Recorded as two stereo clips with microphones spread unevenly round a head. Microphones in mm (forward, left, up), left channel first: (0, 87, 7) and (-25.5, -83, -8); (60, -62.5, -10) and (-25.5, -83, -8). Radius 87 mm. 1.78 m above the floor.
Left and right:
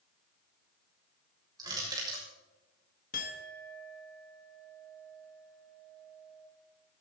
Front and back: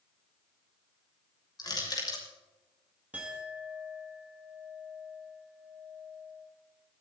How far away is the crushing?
About 6.5 m.